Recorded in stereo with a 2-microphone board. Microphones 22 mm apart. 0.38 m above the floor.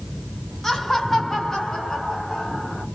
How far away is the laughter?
About 1.4 m.